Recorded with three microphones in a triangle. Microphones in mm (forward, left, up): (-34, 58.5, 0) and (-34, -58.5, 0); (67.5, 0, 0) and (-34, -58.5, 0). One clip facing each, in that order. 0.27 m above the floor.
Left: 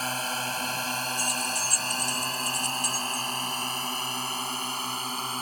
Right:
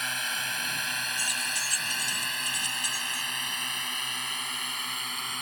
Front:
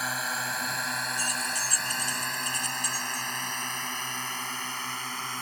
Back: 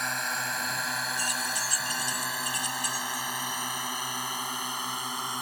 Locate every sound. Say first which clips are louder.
0.0 s a drone: left 5 dB, even; 115° left; by 5.4 s 140° left
1.2 s keys jangling: left 5 dB, even; 60° left